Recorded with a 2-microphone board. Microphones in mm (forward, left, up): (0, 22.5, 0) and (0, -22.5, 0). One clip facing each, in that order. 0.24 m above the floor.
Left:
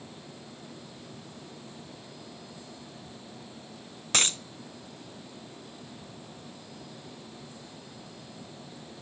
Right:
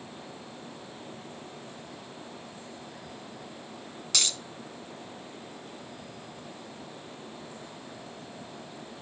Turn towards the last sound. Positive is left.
turn(degrees=35)  # may be behind; listen again after turning